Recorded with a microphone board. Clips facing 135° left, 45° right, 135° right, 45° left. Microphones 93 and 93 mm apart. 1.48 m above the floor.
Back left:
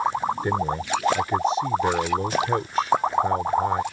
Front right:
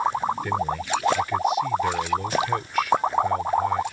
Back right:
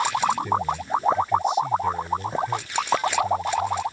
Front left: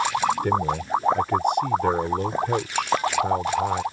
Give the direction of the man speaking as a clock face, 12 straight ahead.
10 o'clock.